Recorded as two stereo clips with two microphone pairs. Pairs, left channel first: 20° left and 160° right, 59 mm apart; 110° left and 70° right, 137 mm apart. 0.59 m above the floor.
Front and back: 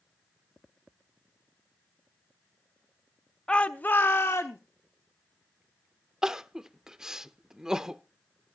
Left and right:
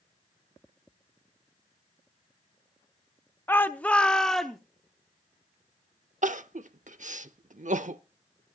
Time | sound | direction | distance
3.5 | a shout | 70° left | 0.7 m
6.2 | crying | 85° right | 0.7 m